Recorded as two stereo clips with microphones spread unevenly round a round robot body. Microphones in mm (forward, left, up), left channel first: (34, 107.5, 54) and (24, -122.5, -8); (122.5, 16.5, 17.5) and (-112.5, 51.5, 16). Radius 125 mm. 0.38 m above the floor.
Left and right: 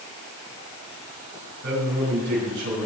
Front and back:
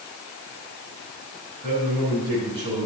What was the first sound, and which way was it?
A man speaking, 120° right.